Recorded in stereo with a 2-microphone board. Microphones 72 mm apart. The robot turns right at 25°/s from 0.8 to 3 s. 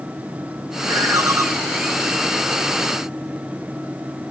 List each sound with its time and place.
0.8 s a ringtone: 65° right (ahead or behind), 3 m; by 1.4 s 50° right (ahead or behind), 3 m